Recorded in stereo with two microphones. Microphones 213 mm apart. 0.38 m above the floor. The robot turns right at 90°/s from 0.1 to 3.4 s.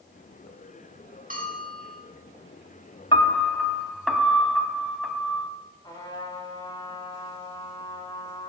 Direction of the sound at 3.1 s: 25° left (ahead or behind).